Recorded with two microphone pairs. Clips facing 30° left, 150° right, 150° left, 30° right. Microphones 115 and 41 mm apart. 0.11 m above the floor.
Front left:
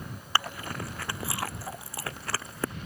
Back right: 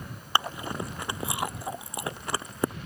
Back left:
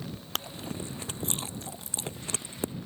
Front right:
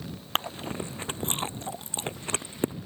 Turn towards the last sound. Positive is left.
turn(degrees=-80)